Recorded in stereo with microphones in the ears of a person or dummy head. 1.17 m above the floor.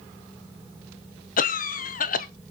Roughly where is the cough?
Left.